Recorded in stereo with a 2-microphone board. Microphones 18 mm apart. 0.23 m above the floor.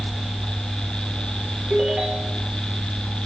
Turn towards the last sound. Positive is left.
turn(degrees=-55)  # may be behind; listen again after turning